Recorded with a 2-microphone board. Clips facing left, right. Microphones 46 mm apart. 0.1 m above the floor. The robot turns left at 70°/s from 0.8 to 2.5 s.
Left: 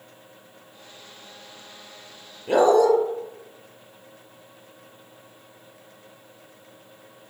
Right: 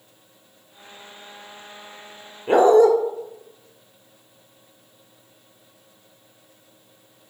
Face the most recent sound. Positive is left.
turn(degrees=-25)  # may be behind; listen again after turning